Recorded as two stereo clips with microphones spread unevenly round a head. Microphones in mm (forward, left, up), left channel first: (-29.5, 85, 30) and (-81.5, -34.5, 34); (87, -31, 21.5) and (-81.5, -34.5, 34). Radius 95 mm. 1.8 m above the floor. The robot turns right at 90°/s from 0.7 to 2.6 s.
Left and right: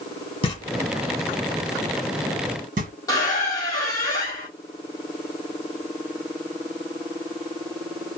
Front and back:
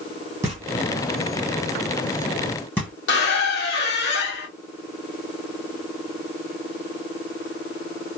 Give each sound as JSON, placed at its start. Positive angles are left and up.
{"t": 0.4, "sound": "knocking", "azimuth_deg": 110, "distance_m": 1.3}
{"t": 3.1, "sound": "a squeak", "azimuth_deg": -5, "distance_m": 1.1}